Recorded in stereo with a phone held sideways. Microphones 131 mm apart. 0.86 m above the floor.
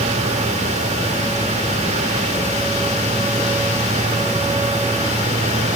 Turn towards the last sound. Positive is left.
turn(degrees=-70)  # may be behind; listen again after turning